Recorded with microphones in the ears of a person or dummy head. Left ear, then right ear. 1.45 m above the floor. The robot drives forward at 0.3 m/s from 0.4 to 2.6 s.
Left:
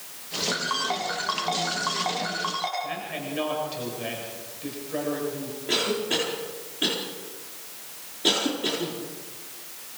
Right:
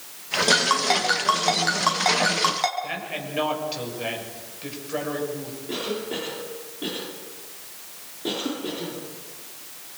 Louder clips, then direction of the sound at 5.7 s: Left 5 dB; 55° left (ahead or behind).